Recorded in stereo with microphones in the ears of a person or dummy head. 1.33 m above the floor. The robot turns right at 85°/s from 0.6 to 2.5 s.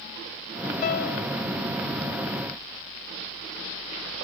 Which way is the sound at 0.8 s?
40° left.